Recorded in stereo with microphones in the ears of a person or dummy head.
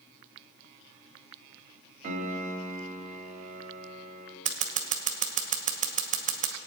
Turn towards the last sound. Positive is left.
turn(degrees=-35)  # may be behind; listen again after turning